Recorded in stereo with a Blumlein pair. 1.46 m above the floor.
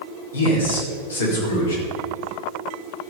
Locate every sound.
0.3 s a man speaking: 70° left, 4.5 m